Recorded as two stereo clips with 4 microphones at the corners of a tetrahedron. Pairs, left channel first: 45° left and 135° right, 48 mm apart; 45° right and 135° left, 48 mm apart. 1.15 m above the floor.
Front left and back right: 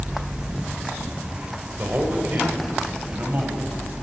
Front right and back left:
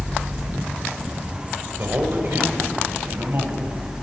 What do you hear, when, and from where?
1.8 s a man speaking: 175° left, 5 m; by 3.6 s 170° left, 7 m